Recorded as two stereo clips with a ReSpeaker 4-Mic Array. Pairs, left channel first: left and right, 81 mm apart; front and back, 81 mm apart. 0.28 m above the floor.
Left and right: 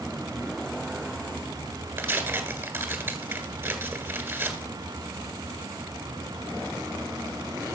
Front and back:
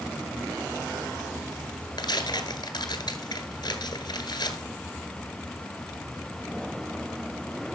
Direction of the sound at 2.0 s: 30° right.